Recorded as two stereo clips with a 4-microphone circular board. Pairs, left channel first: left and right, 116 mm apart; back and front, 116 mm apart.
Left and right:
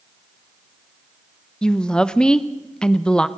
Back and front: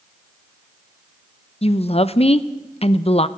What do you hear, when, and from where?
1.6 s a woman speaking: 170° left, 0.8 m